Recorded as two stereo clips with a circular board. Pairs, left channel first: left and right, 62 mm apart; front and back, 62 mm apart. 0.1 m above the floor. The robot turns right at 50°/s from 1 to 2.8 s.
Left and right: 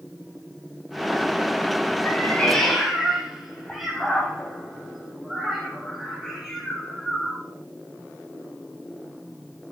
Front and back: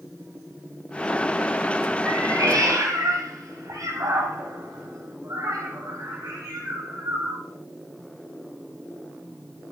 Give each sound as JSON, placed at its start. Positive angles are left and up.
{"t": 2.0, "sound": "a cat meowing", "azimuth_deg": 145, "distance_m": 2.5}